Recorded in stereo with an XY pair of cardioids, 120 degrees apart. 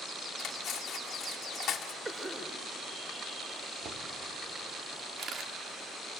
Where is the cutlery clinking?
60° left, 1.4 m.